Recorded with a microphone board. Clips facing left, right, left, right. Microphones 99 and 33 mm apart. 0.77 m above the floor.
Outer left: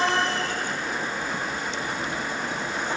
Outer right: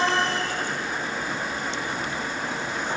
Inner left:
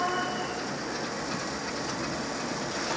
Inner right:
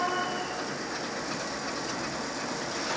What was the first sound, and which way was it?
Only background noise.